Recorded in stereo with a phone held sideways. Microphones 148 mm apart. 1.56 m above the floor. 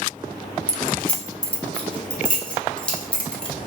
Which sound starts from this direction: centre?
Keys jangling, at 0.7 s.